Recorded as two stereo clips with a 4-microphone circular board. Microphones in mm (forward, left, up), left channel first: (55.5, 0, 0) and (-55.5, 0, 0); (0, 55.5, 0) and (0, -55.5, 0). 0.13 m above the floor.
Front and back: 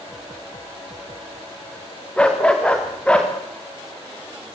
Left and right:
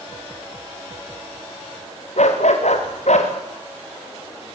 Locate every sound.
2.2 s a dog barking: 80° left, 4.5 m